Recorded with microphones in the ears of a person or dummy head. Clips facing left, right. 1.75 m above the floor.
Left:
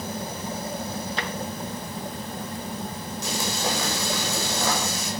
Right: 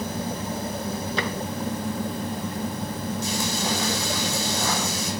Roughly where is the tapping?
Right.